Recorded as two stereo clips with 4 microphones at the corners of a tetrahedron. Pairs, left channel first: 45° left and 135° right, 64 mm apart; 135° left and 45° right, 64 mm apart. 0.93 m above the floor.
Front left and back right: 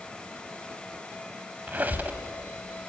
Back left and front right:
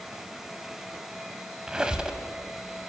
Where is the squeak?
110° right, 0.9 m.